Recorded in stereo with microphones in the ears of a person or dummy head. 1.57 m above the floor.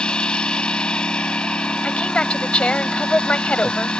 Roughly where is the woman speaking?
Centre.